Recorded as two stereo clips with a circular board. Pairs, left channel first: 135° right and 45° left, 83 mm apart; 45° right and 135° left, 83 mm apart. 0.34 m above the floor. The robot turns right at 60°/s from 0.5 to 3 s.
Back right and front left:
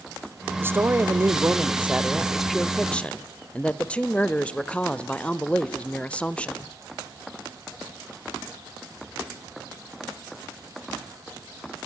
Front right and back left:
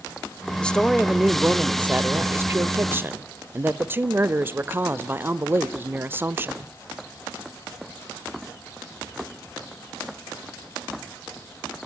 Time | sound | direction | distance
0.6 | a woman speaking | 20° left | 0.9 m